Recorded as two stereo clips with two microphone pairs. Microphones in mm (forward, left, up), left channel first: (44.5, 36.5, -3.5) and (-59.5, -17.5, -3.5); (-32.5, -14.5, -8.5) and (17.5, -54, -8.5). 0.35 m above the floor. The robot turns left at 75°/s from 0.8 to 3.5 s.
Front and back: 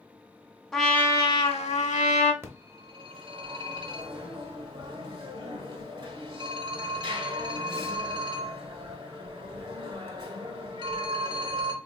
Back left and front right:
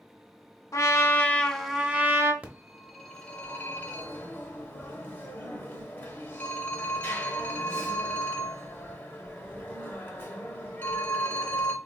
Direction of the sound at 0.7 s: 115° left.